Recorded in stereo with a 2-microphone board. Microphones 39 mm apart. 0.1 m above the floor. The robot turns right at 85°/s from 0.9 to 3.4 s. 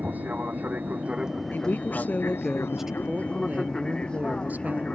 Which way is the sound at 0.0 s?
40° right (ahead or behind).